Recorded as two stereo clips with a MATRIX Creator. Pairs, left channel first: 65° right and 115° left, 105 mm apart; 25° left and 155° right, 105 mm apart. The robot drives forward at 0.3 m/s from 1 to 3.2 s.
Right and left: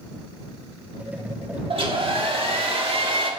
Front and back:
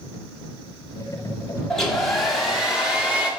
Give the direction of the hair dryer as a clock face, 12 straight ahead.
9 o'clock.